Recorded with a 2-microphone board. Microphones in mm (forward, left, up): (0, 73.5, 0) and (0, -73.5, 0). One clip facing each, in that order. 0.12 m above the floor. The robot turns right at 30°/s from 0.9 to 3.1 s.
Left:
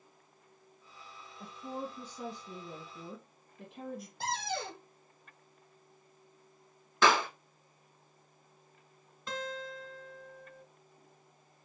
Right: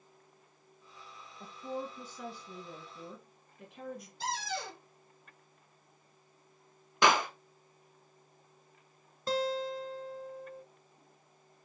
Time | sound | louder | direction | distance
1.4 | a woman speaking | right 1 dB | 10° left | 1.6 m
4.2 | a cupboard door | left 1 dB | 60° left (ahead or behind) | 1.7 m
7.0 | a clap | even | 15° right (ahead or behind) | 1.3 m
9.3 | a guitar | right 8 dB | 35° right (ahead or behind) | 0.8 m